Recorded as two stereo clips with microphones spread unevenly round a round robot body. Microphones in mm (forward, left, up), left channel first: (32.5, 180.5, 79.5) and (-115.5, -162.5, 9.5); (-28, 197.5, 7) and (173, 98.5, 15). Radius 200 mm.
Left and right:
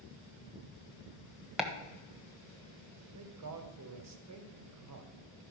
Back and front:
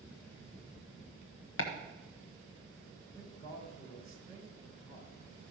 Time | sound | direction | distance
1.6 | chopping | 165° left | 1.3 m
3.1 | a man speaking | 135° right | 1.5 m